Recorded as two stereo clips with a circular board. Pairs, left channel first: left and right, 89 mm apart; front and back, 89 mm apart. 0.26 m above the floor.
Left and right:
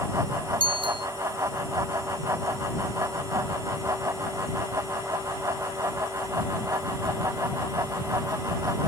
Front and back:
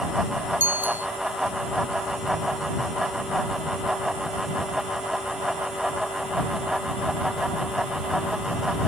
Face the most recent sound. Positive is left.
turn(degrees=-110)